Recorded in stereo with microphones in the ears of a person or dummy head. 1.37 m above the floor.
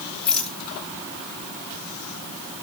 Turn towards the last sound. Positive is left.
turn(degrees=5)  # may be behind; listen again after turning